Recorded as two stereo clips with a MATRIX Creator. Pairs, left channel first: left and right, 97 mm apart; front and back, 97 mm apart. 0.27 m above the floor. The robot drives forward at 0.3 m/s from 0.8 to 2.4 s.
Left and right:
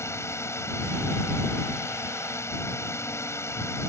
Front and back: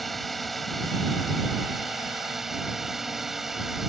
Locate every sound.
0.0 s a drone: 90° left; by 3.9 s 95° left